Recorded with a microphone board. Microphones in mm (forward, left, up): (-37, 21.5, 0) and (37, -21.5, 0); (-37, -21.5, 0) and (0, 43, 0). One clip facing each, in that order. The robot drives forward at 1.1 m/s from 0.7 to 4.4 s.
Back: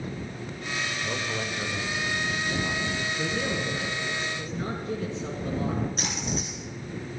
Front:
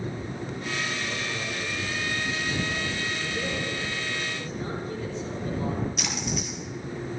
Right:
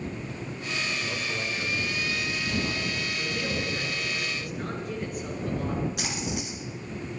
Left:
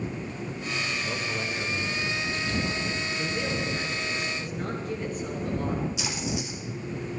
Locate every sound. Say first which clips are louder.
1.0 s a man speaking: back 1 dB, left 1 dB; 110° left, 1.3 m; by 3.7 s 170° left, 3.5 m
3.2 s a man speaking: back 2 dB, left 1 dB; 145° left, 3.5 m; by 5.8 s 155° left, 4.5 m
6.0 s a splash: even, left 1 dB; 160° right, 3 m